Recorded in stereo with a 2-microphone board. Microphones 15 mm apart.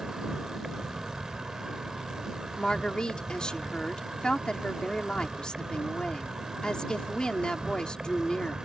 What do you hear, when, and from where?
0.0 s an insect: 80° right
2.6 s a woman speaking: 80° left